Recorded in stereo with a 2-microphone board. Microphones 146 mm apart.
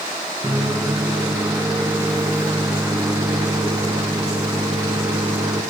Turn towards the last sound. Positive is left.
turn(degrees=-20)  # may be behind; listen again after turning